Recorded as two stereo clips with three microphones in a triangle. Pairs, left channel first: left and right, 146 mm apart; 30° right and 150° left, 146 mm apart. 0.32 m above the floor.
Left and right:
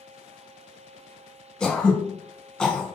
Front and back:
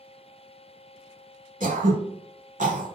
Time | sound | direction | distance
1.6 | throat clearing | 175° left | 1.1 m